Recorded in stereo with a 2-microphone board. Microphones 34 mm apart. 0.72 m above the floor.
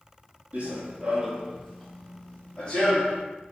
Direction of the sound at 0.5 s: 45° right (ahead or behind).